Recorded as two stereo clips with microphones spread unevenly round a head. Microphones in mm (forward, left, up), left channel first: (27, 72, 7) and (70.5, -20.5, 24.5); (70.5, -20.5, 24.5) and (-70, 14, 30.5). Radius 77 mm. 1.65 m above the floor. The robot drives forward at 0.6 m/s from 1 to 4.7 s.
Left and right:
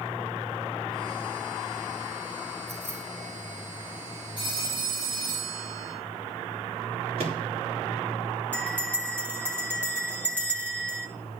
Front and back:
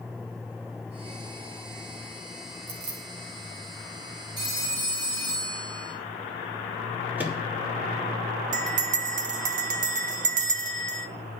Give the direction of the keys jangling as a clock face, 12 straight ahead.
5 o'clock.